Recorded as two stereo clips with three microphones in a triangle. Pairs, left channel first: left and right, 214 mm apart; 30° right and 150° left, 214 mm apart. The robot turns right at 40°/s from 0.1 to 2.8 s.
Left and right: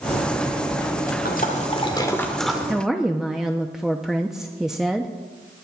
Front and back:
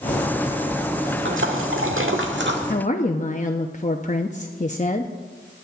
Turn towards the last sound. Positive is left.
turn(degrees=-5)